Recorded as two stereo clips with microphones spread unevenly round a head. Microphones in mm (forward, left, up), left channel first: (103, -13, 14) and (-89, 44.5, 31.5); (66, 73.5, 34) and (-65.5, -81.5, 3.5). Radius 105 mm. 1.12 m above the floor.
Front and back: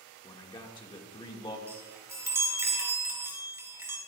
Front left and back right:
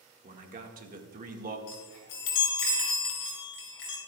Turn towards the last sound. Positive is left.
turn(degrees=85)